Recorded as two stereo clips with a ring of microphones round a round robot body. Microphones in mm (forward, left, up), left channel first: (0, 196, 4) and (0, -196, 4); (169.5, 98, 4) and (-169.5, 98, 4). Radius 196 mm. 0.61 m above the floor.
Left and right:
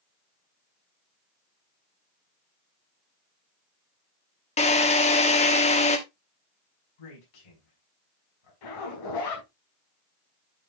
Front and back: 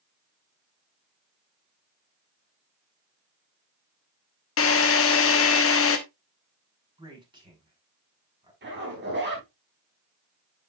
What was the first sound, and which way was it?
A drill, 25° left.